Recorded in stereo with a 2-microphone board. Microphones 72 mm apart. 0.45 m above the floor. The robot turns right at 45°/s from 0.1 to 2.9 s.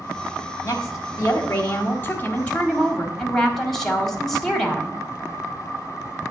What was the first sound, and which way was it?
A woman speaking, 75° left.